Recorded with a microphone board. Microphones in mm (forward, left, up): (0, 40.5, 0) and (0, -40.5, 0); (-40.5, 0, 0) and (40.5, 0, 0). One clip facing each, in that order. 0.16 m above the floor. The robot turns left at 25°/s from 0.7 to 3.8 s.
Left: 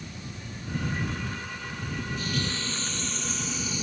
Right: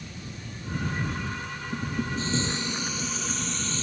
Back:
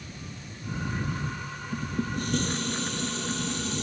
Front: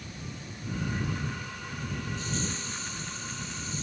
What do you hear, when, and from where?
1.7 s dishes clattering: 140° right; by 3.8 s 165° left